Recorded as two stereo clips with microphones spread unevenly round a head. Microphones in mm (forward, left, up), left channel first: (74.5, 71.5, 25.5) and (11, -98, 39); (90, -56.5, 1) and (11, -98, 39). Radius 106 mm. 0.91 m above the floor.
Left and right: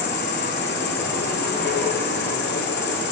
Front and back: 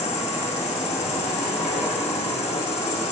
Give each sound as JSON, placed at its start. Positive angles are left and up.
{"t": 0.0, "sound": "an insect", "azimuth_deg": 40, "distance_m": 2.5}